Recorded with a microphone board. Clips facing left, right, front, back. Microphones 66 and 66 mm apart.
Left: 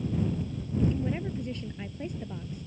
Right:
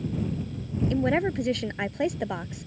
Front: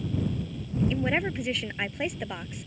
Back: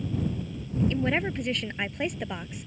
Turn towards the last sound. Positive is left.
turn(degrees=-90)